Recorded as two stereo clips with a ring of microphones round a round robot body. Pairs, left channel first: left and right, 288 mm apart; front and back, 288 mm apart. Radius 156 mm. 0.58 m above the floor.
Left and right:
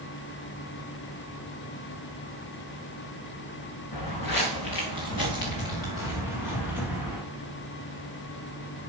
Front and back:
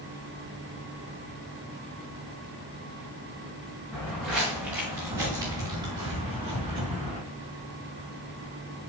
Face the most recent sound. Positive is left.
turn(degrees=110)